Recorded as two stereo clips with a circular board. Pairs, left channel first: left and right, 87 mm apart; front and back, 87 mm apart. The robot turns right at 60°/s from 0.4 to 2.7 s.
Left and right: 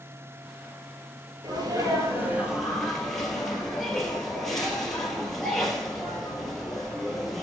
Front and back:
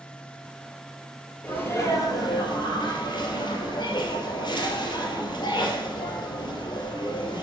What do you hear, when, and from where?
1.4 s a sneeze: 75° right, 2 m; by 7.4 s 5° left, 2 m